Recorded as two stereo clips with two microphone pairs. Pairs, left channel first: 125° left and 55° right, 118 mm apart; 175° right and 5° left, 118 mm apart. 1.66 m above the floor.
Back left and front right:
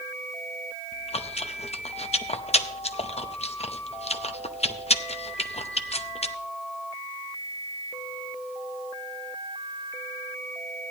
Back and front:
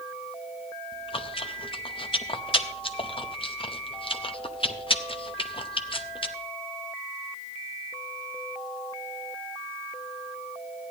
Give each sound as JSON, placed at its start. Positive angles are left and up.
{"t": 0.9, "sound": "chewing", "azimuth_deg": 150, "distance_m": 0.6}